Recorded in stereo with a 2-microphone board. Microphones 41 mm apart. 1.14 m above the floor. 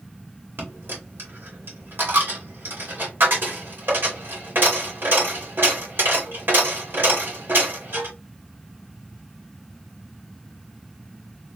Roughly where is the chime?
No chime in this recording.